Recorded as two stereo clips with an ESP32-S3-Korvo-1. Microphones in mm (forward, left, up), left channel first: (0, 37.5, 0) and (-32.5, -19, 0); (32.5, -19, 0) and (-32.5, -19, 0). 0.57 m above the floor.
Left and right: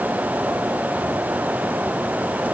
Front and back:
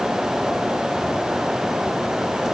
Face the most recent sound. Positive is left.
No sound to turn to.